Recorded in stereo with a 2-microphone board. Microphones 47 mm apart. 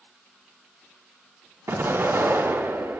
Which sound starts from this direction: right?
An explosion, at 1.7 s.